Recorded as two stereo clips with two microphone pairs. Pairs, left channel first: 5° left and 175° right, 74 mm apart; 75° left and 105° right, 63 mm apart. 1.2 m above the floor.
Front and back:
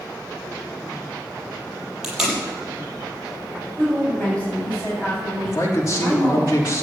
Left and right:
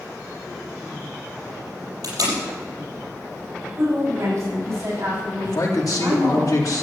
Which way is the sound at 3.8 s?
65° right.